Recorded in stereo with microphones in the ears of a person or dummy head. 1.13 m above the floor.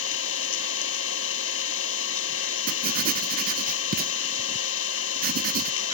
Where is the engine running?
80° left.